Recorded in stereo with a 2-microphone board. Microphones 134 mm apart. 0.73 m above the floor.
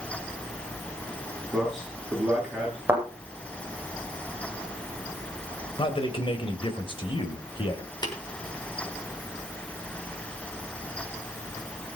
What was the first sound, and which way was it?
A man speaking, centre (ahead or behind).